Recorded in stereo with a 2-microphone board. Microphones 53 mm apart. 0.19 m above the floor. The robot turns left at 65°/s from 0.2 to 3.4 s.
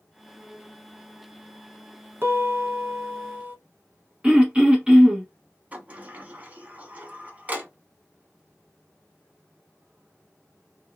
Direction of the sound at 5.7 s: 30° right (ahead or behind).